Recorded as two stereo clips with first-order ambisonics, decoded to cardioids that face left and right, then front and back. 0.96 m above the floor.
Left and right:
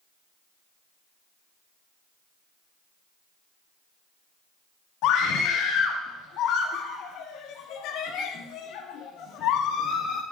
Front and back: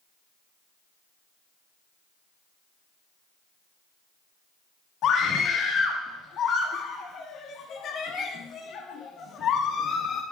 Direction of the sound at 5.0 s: 55° left.